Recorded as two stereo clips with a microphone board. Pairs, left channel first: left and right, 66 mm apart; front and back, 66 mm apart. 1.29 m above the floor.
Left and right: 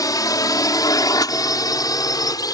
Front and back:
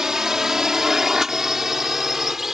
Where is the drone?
100° left; by 2.5 s 95° left.